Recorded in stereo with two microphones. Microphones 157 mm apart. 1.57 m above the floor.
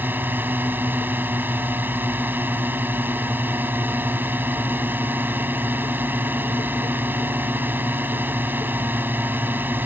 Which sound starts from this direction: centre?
A drone, at 0.0 s.